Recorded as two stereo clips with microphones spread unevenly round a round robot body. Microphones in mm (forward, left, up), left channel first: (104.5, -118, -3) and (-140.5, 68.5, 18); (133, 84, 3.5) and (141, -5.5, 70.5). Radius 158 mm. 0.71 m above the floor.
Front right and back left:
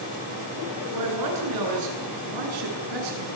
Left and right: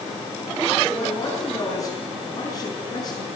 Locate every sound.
0.9 s a man speaking: 165° left, 9 m; by 3.4 s 140° left, 8 m